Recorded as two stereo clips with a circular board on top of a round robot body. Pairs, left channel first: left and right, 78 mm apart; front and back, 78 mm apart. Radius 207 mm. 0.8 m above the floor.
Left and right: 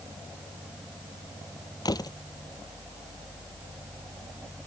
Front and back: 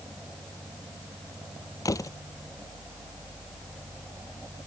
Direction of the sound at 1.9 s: 50° left.